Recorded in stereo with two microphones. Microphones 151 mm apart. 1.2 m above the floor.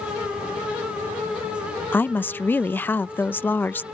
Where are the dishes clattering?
No dishes clattering in this recording.